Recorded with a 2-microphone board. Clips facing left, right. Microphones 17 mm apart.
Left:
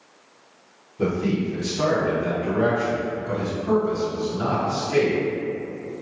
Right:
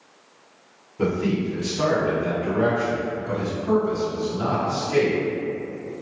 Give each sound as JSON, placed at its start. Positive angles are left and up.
{"t": 1.0, "sound": "a man speaking", "side_deg": -55, "distance_m": 1.8}